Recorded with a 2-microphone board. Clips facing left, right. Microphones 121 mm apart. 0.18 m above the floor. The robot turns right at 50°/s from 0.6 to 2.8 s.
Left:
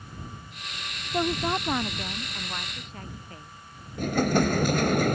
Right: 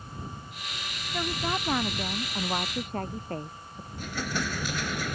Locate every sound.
1.1 s a woman speaking: 145° left; by 3.9 s 130° right
4.0 s an explosion: 50° left (ahead or behind)